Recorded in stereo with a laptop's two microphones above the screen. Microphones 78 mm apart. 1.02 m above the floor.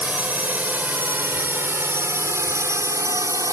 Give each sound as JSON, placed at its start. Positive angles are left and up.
{"t": 0.0, "sound": "a drone", "side_deg": -20}